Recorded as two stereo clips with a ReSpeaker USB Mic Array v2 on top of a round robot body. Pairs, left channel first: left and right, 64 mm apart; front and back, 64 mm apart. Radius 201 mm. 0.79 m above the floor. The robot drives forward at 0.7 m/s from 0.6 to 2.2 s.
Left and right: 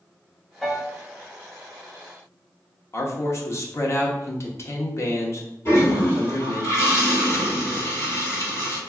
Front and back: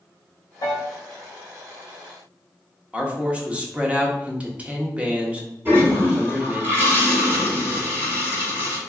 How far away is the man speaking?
About 0.9 m.